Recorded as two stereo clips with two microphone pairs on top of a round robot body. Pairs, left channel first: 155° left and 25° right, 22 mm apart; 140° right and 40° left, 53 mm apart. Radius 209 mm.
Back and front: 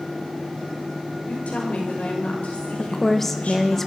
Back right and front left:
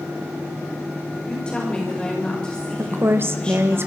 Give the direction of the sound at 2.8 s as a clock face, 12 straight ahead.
9 o'clock.